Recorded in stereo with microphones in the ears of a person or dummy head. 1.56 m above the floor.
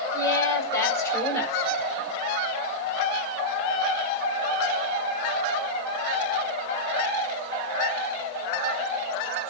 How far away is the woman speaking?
About 6 m.